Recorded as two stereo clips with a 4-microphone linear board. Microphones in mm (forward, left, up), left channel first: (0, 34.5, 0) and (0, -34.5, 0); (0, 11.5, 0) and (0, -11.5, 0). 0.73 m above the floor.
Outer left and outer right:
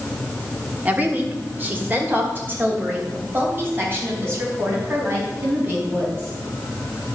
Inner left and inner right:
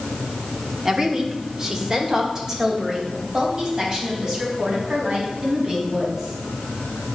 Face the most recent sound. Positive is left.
turn(degrees=-35)  # may be behind; listen again after turning